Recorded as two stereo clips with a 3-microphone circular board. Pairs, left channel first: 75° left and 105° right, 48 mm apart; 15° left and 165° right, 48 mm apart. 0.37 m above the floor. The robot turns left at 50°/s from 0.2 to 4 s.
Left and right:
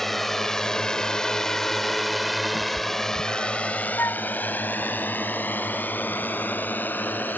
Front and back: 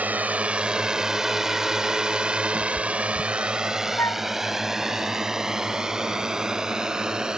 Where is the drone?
155° left; by 7.4 s 120° left.